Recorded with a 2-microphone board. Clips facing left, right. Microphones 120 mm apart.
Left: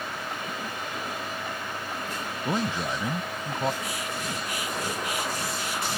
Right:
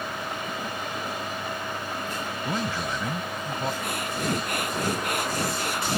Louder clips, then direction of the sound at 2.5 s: Left 2 dB; 20° left (ahead or behind).